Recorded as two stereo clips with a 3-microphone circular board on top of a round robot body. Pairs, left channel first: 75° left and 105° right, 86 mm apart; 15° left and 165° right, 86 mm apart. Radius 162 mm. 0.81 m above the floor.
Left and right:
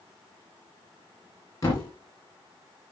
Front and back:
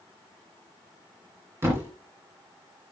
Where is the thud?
135° left, 1.9 m.